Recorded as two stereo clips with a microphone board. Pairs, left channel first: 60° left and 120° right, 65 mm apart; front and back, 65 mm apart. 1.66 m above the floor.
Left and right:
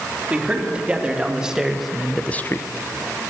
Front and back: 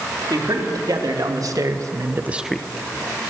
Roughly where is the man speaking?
Behind.